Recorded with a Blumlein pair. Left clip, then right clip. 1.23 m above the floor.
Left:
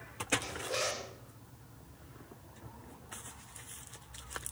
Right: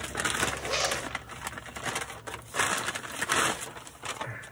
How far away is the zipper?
About 0.9 m.